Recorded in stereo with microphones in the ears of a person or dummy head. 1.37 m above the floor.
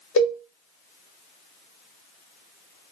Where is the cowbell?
75° left (ahead or behind), 1.5 m.